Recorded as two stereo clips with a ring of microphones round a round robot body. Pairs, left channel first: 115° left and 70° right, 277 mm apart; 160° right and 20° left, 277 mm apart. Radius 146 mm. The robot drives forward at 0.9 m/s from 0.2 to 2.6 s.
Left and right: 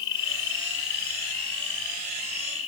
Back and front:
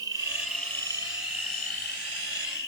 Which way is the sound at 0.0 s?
100° left.